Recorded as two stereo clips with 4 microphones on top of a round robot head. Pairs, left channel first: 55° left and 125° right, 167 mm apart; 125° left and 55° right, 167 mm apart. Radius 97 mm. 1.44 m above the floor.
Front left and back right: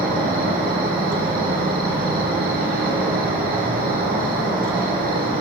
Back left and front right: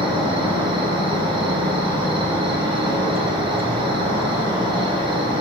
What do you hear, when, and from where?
0.0 s an insect: 110° right, 1.8 m